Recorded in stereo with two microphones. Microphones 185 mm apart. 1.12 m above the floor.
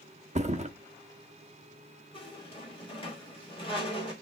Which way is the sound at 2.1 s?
30° left (ahead or behind).